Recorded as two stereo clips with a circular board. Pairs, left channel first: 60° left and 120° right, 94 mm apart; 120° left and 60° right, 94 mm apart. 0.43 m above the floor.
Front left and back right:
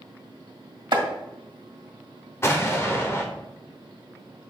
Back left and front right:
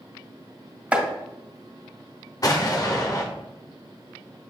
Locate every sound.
0.9 s chopping: 135° right, 2 m
2.4 s an explosion: 105° left, 1.0 m